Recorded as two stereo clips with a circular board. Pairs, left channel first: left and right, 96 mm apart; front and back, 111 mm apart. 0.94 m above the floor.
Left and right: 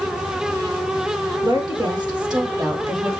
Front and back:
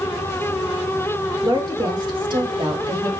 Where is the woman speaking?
130° right, 3 m; by 3.1 s 145° right, 2.5 m.